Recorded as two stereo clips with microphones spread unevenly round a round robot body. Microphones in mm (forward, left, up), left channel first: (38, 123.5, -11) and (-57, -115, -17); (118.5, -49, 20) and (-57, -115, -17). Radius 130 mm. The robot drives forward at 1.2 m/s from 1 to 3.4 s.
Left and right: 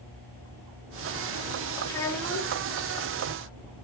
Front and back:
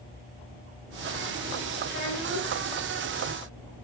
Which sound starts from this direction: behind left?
A child speaking, at 1.9 s.